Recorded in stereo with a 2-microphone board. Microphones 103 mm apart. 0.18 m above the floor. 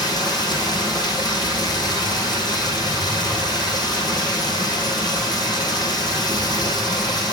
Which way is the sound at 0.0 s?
40° left (ahead or behind).